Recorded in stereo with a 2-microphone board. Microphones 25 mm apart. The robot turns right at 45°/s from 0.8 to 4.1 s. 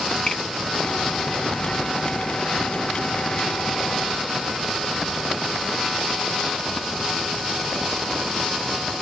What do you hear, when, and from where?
0.3 s a finger snap: 30° left (ahead or behind), 1.5 m